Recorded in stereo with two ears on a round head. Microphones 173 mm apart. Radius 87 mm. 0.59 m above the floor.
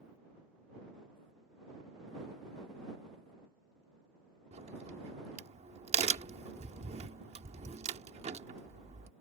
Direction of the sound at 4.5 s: 35° right (ahead or behind).